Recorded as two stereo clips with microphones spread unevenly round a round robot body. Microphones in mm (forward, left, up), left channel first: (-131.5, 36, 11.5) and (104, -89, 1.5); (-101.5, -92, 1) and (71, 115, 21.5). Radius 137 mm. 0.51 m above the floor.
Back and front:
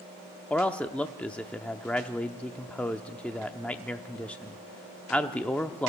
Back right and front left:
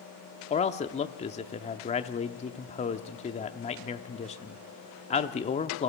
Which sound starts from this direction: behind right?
A man speaking, at 0.5 s.